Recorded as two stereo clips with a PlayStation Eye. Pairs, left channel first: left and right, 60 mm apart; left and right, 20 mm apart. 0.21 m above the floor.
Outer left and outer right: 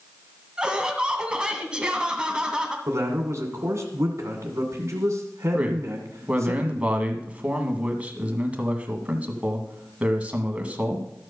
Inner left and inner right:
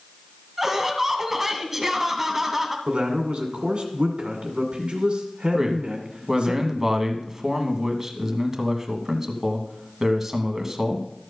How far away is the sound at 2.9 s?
About 2.0 m.